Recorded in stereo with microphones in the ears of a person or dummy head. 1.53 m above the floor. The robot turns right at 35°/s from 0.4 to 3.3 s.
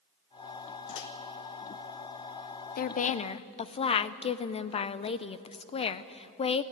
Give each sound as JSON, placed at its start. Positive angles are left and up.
{"t": 0.9, "sound": "a microwave", "side_deg": 70, "distance_m": 1.2}
{"t": 2.8, "sound": "a woman speaking", "side_deg": 50, "distance_m": 0.5}